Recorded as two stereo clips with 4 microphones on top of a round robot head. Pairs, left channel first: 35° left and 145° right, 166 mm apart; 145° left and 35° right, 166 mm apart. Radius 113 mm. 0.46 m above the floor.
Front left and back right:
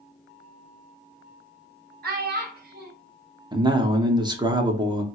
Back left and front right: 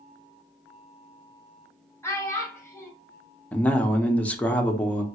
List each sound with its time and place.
2.0 s a child speaking: 140° right, 1.3 m
3.5 s a man speaking: 145° right, 0.7 m